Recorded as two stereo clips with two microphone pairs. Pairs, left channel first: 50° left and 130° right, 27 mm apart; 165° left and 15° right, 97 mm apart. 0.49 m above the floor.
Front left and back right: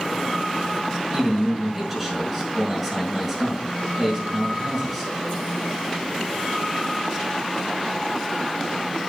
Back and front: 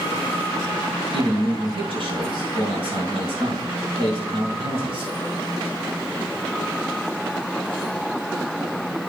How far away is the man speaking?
About 5.5 m.